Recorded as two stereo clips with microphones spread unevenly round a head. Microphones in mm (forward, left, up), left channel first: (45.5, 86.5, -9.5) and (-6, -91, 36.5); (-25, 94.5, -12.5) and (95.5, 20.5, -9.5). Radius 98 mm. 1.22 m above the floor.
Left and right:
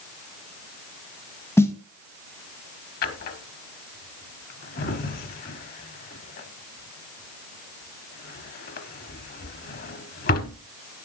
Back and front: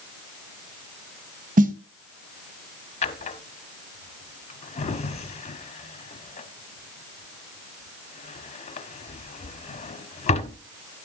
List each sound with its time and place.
1.6 s a snare drum: 5° right, 1.0 m
3.0 s a drawer: 120° left, 1.1 m